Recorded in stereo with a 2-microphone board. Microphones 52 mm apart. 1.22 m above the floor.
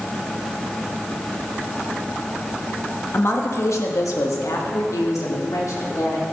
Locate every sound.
3.1 s a woman speaking: 50° left (ahead or behind), 1.5 m; by 6.2 s 75° left (ahead or behind), 3 m